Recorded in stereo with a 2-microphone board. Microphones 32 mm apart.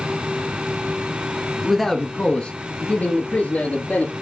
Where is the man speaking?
5° right (ahead or behind), 1.1 m; by 4.1 s 70° left (ahead or behind), 3 m.